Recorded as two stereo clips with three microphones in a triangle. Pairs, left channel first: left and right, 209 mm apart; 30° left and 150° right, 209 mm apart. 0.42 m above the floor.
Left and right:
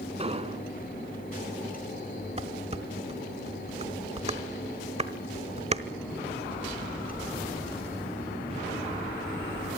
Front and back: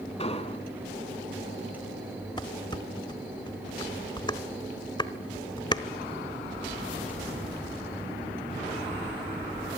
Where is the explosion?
30° right, 1.6 m.